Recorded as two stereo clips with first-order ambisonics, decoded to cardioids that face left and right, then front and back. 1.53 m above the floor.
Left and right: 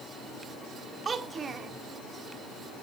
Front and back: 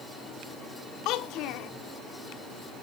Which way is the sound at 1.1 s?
25° right.